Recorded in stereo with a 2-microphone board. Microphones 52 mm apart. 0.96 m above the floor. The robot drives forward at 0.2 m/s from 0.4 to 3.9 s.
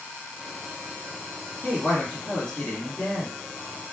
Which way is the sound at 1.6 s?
35° left (ahead or behind).